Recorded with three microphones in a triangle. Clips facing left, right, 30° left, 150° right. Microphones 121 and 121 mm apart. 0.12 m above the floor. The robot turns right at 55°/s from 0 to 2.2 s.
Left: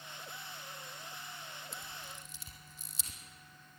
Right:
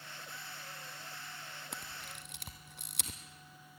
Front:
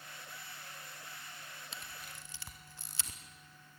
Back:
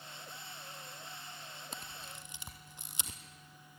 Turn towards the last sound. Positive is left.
turn(degrees=-80)